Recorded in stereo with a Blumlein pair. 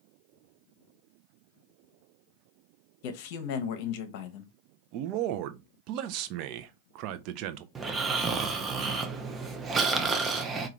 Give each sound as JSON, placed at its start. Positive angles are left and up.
{"t": 3.0, "sound": "a man speaking", "azimuth_deg": 45, "distance_m": 0.8}
{"t": 4.9, "sound": "a man speaking", "azimuth_deg": -40, "distance_m": 0.5}
{"t": 7.8, "sound": "snoring", "azimuth_deg": -20, "distance_m": 0.5}